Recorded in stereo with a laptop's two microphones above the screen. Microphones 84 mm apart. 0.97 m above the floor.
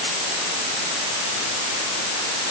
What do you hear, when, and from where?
Only background noise.